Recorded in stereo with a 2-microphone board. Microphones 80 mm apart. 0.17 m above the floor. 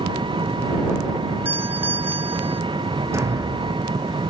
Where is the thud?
35° right (ahead or behind).